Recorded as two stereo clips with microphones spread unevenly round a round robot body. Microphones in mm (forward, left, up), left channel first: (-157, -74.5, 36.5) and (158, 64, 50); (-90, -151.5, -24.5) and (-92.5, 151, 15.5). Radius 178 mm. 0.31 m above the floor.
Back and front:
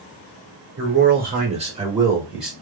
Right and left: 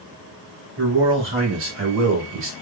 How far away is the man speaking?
About 1.5 m.